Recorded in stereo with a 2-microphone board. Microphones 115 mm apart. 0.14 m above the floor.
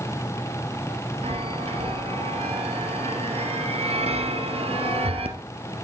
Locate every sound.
1.2 s a chime: 65° right (ahead or behind), 1.2 m